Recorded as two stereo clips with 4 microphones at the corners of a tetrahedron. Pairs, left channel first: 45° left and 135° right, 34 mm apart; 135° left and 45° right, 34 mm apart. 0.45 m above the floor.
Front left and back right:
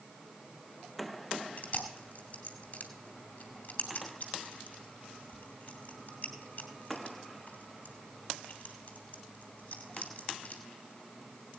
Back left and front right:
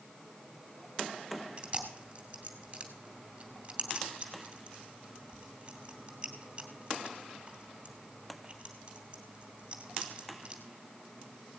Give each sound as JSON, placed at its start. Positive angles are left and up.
{"t": 1.6, "sound": "chewing", "azimuth_deg": 15, "distance_m": 2.5}